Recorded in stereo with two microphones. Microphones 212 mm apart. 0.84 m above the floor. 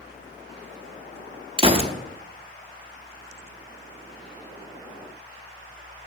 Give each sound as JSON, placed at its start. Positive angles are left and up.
{"t": 1.6, "sound": "a gunshot", "side_deg": -25, "distance_m": 0.7}